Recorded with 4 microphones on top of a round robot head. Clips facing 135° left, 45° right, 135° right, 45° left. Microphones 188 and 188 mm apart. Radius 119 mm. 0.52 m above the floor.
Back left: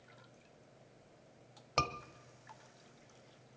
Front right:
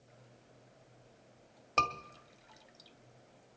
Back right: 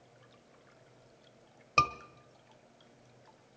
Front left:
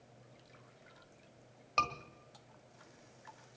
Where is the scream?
150° right, 1.5 m.